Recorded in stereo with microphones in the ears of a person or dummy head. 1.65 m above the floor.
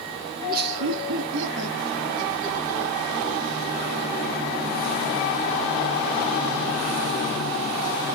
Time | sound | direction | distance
0.4 | laughter | 35° right (ahead or behind) | 0.5 m